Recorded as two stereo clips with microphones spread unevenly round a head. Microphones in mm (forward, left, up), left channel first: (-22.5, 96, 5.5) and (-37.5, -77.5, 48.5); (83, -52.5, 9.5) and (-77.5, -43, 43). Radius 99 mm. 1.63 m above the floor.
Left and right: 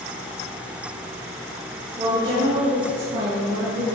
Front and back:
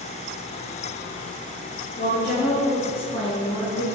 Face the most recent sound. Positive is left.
turn(degrees=-55)